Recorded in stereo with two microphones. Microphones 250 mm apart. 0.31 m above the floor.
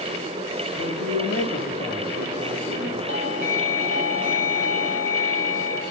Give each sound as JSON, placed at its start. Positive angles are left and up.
{"t": 0.8, "sound": "a man speaking", "side_deg": 60, "distance_m": 8.0}
{"t": 3.1, "sound": "a doorbell", "side_deg": 70, "distance_m": 9.5}